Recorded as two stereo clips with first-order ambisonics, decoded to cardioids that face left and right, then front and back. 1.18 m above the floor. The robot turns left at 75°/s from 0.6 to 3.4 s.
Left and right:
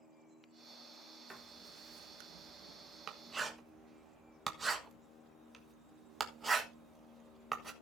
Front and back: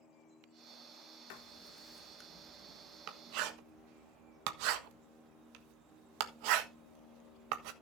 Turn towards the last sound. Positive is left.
turn(degrees=-170)